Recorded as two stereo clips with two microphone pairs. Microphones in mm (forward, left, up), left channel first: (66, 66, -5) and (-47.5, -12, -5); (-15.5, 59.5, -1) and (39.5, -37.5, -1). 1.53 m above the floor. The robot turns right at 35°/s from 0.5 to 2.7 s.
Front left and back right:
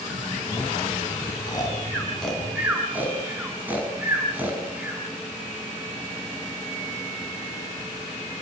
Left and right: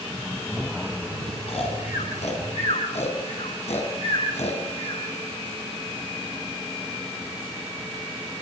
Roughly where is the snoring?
Left.